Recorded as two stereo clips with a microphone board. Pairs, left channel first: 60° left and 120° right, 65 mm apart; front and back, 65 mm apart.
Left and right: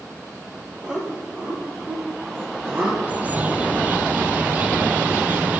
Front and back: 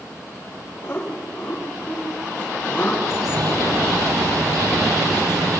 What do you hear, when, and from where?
0.8 s laughter: 50° right, 7 m; by 2.9 s 70° right, 6 m
3.0 s a bird: 175° left, 0.8 m